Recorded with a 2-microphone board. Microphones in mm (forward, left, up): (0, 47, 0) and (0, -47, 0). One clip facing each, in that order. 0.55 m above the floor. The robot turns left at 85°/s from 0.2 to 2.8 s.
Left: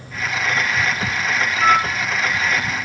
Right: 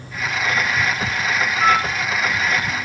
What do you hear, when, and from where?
1.6 s a flute: 30° right (ahead or behind), 1.3 m; by 1.9 s 25° right (ahead or behind), 1.3 m